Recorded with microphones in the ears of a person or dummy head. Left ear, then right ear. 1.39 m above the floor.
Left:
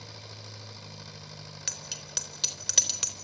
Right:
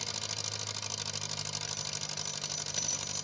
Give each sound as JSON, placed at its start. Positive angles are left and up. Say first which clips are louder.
{"t": 0.0, "sound": "an engine running", "louder": "right 9 dB", "side_deg": -70, "distance_m": 2.0}
{"t": 1.7, "sound": "a bicycle bell", "louder": "left 1 dB", "side_deg": 45, "distance_m": 3.5}